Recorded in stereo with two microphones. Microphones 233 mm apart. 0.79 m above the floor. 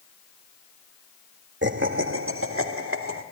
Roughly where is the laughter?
Right.